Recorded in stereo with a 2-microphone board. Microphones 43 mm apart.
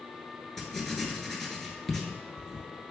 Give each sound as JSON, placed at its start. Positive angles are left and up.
{"t": 0.6, "sound": "writing", "side_deg": 10, "distance_m": 0.6}